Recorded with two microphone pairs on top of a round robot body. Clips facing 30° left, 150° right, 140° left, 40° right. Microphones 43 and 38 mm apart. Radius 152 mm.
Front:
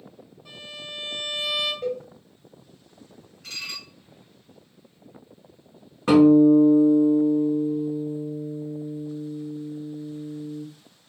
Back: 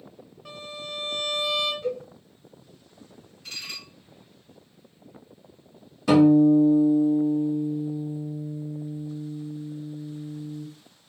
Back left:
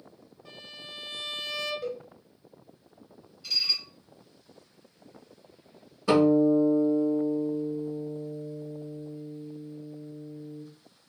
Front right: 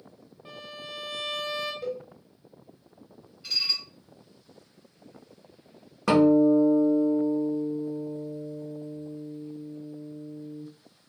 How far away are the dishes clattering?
About 1.6 m.